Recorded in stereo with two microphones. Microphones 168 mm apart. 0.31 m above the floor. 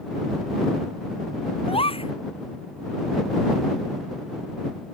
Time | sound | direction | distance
1.7 | a gasp | 35° left (ahead or behind) | ?